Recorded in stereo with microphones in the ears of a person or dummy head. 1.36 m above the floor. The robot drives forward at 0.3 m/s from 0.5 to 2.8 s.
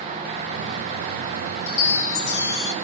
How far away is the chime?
About 1.6 m.